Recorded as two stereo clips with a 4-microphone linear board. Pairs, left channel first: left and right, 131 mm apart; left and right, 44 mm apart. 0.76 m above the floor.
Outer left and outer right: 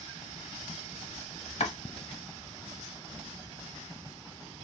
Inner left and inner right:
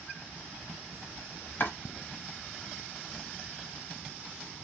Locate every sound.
1.6 s chopping: 55° left (ahead or behind), 0.8 m